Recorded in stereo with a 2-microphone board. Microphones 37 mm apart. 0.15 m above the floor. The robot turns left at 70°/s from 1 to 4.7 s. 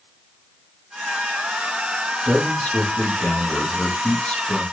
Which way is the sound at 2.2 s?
Straight behind.